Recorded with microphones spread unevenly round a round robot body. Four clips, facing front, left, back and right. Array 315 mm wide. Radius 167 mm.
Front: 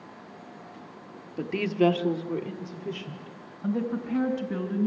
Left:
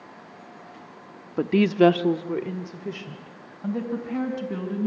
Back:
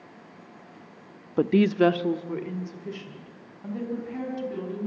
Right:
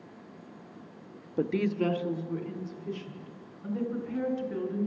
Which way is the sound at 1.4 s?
150° left.